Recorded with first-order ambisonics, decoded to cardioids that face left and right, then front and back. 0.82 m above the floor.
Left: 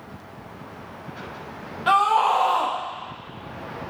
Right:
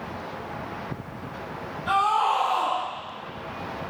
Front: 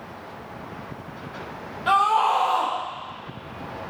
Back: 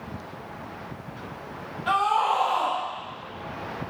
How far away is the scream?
About 1.2 m.